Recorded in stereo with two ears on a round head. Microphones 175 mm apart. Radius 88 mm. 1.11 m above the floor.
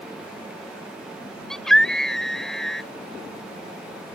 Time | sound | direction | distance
1.5 | a scream | 5° left (ahead or behind) | ?